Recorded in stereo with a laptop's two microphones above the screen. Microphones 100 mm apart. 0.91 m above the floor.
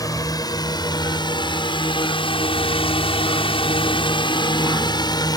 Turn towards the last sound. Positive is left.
turn(degrees=40)  # may be behind; listen again after turning